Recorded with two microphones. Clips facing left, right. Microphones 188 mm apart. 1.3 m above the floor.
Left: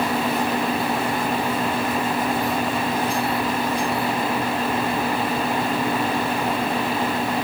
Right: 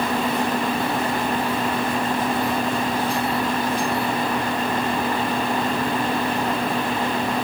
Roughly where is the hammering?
No hammering in this recording.